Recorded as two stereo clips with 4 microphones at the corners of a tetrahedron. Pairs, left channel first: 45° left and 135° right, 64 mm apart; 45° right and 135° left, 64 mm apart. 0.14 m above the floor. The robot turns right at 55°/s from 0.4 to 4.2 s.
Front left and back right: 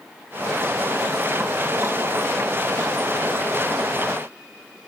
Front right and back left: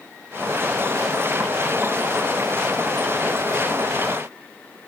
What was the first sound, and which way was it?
Only background noise.